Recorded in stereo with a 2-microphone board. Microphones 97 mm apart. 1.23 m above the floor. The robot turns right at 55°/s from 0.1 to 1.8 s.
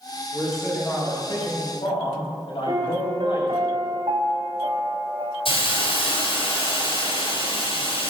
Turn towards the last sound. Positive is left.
turn(degrees=70)  # may be behind; listen again after turning